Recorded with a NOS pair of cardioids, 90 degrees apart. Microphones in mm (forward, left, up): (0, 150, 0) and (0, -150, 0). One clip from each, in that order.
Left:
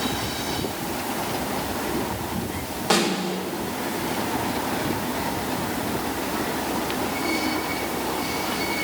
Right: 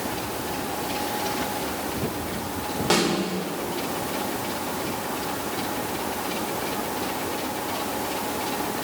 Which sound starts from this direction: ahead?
A snare drum, at 2.9 s.